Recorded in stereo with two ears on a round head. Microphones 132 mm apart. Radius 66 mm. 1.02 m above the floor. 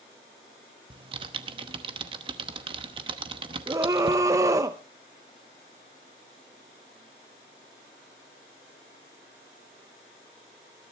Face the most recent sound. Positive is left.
turn(degrees=-25)  # may be behind; listen again after turning